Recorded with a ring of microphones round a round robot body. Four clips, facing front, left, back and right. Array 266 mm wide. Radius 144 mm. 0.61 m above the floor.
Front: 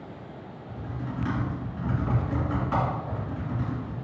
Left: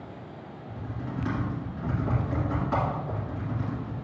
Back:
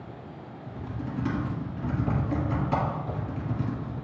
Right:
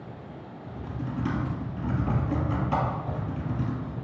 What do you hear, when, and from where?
0.7 s typing on a keyboard: 130° right, 2.5 m